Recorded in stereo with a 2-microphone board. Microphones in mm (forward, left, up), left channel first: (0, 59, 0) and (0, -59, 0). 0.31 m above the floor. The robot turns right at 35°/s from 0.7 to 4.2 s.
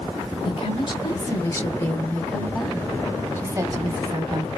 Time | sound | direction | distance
0.5 | a woman speaking | 115° left | 1.7 m